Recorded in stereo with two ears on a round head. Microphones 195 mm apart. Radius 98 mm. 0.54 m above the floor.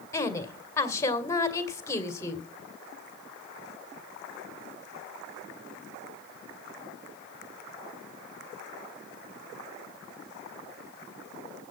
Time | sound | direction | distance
0.1 | a woman speaking | 15° left (ahead or behind) | 2 m